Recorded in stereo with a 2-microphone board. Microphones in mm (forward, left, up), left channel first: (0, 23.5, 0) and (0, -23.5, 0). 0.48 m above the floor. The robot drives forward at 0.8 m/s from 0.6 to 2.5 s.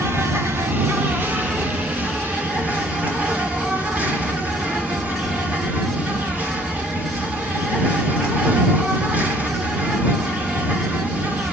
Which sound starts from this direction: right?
An insect, at 0.0 s.